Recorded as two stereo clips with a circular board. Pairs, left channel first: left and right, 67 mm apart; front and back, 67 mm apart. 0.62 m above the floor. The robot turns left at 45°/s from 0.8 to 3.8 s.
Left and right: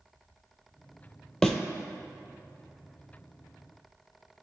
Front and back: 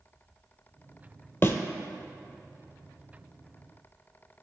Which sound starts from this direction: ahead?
A thud, at 1.4 s.